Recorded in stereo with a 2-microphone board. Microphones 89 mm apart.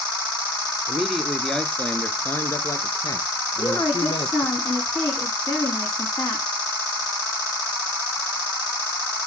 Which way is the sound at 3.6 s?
35° left (ahead or behind).